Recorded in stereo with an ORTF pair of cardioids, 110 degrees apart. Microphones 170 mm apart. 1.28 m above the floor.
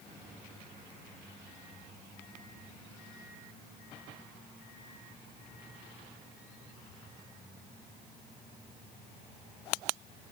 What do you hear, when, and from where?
Only background noise.